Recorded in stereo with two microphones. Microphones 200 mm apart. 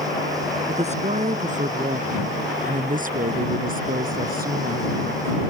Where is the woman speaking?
35° right (ahead or behind); by 5.4 s 50° right (ahead or behind).